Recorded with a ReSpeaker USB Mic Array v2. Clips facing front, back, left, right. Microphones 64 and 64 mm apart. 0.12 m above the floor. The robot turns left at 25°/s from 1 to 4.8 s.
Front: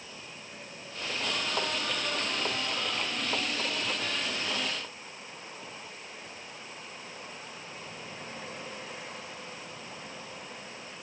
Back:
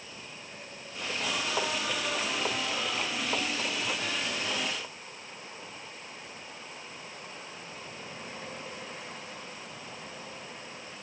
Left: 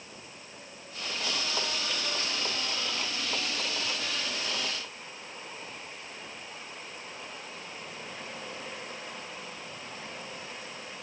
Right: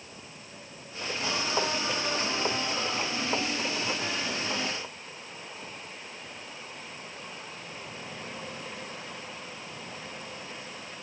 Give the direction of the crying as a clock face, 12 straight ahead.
No crying in this recording.